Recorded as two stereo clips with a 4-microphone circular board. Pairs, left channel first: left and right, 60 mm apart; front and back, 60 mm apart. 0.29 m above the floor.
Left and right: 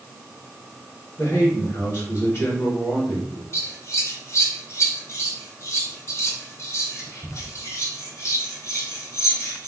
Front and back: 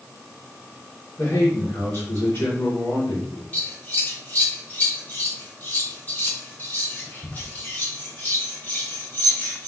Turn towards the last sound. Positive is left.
turn(degrees=50)